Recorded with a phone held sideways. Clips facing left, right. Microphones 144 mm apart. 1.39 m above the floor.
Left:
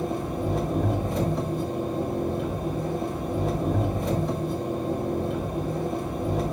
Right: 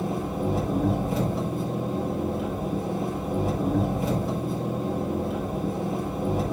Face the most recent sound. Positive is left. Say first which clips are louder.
# even
turn(degrees=-5)  # may be behind; listen again after turning